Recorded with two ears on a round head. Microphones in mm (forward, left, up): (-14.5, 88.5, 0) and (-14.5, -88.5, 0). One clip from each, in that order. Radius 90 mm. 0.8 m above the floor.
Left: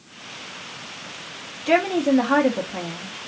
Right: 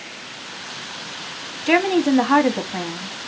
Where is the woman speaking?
20° right (ahead or behind), 1.0 m.